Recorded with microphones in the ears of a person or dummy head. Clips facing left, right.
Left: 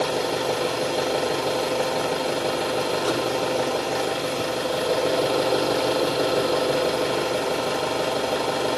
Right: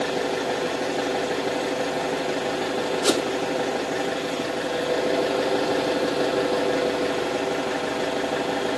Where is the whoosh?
30° right (ahead or behind), 0.5 m.